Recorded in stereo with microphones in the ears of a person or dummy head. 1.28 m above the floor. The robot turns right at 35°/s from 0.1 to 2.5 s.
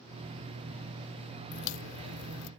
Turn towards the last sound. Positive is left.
turn(degrees=80)